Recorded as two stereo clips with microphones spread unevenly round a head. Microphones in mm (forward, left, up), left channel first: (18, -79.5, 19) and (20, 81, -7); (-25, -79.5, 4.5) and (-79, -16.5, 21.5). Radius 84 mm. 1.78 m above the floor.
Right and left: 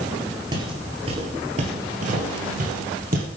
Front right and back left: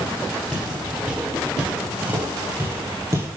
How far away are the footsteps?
About 1.8 m.